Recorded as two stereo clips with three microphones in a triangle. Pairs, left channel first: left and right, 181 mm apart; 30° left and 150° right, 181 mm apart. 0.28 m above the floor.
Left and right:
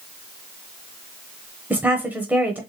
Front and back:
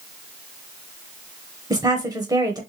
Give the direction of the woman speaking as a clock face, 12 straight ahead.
5 o'clock.